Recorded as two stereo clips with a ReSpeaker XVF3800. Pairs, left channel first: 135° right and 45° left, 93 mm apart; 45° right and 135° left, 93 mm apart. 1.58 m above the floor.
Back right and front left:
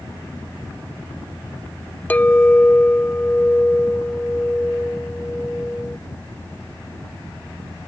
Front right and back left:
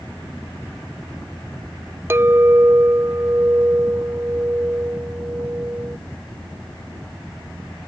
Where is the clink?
170° left.